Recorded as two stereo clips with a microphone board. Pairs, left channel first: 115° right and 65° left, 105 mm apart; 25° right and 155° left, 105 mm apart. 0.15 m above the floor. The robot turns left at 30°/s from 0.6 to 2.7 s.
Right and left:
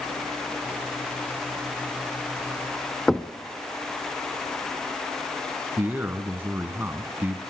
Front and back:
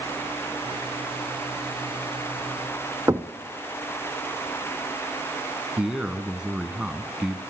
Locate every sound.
3.1 s knocking: 165° left, 0.7 m
5.8 s a man speaking: 90° left, 1.5 m